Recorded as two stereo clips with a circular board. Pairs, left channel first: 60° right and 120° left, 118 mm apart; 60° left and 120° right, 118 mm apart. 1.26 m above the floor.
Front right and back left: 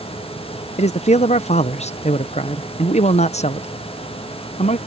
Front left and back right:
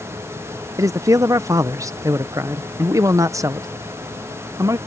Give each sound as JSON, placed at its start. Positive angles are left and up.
{"t": 0.8, "sound": "a man speaking", "azimuth_deg": -60}